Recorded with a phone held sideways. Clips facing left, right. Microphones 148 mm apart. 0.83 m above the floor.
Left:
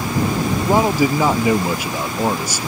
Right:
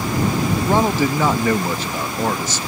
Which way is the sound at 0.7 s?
10° left (ahead or behind).